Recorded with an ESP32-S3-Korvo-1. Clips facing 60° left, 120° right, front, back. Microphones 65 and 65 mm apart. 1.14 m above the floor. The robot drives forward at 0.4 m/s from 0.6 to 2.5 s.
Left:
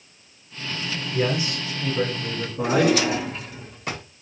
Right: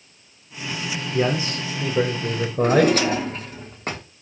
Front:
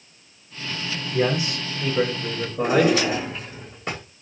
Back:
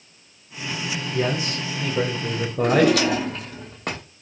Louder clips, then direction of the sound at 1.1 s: Right 2 dB, front 2 dB; 80° right.